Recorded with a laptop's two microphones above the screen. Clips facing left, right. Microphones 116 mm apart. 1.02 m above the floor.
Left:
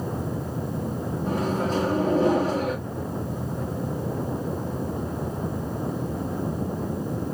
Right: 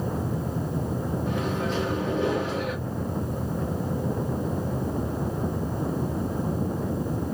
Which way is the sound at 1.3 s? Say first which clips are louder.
Left 5 dB; 35° left (ahead or behind).